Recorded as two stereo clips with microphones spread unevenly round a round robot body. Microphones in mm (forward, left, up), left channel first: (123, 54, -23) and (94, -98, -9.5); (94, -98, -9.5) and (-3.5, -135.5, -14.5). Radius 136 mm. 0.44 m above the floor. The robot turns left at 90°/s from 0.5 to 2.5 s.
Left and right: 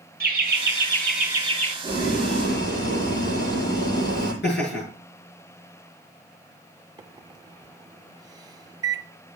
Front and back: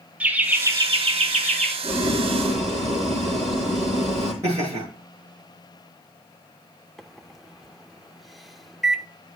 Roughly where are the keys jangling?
No keys jangling in this recording.